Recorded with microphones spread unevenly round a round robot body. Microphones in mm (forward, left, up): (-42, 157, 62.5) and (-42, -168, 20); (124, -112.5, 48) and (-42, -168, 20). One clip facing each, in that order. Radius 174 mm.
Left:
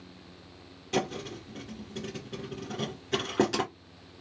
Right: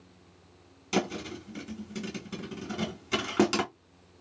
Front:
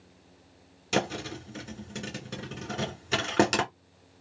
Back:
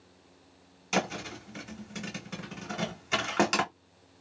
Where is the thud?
25° right, 1.8 m.